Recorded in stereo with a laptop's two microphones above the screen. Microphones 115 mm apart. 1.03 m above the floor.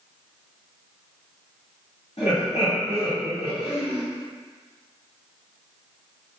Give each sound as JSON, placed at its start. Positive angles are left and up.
{"t": 2.2, "sound": "laughter", "side_deg": 65, "distance_m": 1.6}